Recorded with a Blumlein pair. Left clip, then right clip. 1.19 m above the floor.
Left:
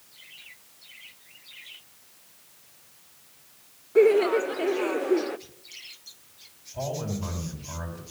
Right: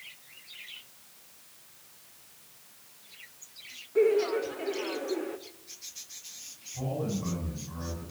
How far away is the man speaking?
About 8.5 m.